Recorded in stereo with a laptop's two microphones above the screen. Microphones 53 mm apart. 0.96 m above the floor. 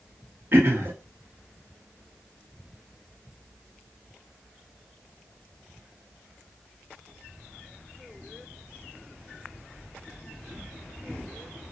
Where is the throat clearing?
50° right (ahead or behind), 0.7 m.